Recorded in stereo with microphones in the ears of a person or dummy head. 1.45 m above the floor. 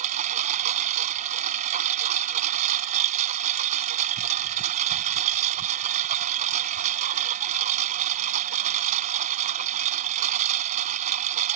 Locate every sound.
0.0 s a lawn mower: 45° right (ahead or behind)